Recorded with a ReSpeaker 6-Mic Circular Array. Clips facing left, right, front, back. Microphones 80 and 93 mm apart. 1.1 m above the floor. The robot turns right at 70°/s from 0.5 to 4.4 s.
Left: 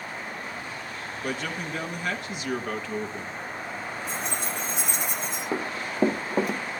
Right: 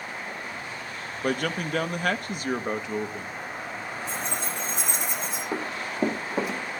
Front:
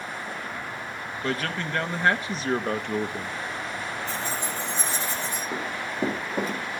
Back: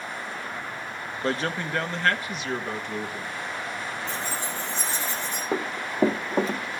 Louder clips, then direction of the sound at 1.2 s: Right 5 dB, back 2 dB; 130° right.